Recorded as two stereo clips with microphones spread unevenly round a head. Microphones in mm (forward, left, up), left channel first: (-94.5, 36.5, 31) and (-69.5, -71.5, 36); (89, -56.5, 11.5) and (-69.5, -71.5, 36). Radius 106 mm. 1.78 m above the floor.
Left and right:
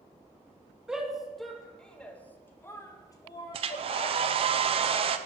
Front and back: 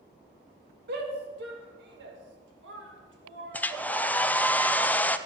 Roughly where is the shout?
Behind.